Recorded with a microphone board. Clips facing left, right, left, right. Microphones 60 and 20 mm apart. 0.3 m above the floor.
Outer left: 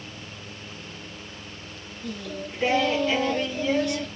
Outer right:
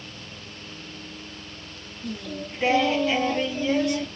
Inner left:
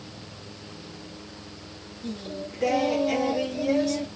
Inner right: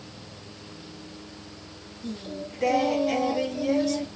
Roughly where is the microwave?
I don't hear a microwave.